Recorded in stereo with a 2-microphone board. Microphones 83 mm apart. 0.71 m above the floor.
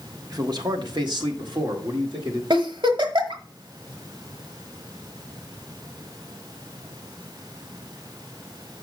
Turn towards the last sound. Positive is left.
turn(degrees=-75)  # may be behind; listen again after turning